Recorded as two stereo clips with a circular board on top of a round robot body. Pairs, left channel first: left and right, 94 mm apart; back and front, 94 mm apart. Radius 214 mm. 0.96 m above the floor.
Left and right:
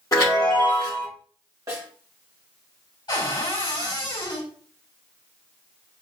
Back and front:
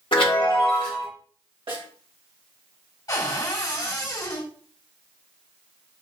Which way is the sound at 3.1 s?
130° left.